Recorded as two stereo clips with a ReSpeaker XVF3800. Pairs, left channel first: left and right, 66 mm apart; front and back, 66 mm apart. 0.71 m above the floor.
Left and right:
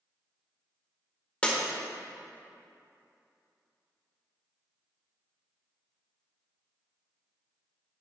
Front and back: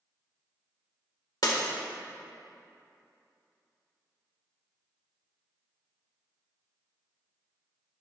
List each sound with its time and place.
1.4 s breaking glass: 20° left, 1.3 m